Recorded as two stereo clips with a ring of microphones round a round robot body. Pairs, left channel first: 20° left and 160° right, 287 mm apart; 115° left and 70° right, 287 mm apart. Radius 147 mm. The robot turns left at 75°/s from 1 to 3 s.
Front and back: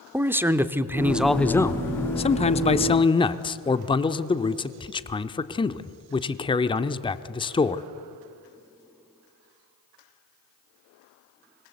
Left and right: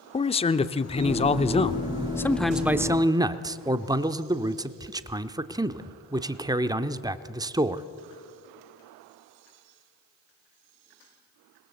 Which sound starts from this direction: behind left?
A man speaking, at 0.1 s.